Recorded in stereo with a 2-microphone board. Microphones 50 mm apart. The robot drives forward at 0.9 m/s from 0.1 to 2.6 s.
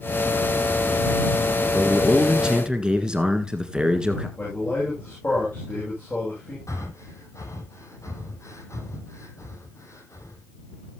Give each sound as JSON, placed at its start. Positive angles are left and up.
{"t": 1.7, "sound": "a man speaking", "side_deg": -20, "distance_m": 1.4}
{"t": 4.4, "sound": "a man speaking", "side_deg": 35, "distance_m": 9.5}
{"t": 6.7, "sound": "breathing", "side_deg": 80, "distance_m": 1.9}